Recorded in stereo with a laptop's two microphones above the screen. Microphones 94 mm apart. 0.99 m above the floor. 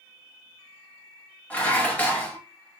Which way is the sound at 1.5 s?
15° left (ahead or behind).